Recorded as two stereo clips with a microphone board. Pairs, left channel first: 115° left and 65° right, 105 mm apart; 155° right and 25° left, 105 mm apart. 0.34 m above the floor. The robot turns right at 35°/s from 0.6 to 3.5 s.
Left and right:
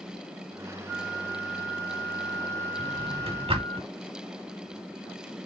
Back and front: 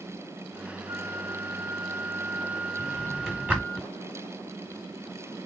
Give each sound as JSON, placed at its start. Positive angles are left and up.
{"t": 0.9, "sound": "a flute", "azimuth_deg": 35, "distance_m": 2.5}
{"t": 2.8, "sound": "a drawer", "azimuth_deg": -80, "distance_m": 1.4}